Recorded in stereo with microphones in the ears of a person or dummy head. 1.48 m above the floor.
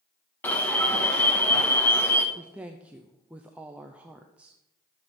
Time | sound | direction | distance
0.4 | an alarm | 10° left (ahead or behind) | 1.3 m
2.4 | a woman speaking | 5° right (ahead or behind) | 0.5 m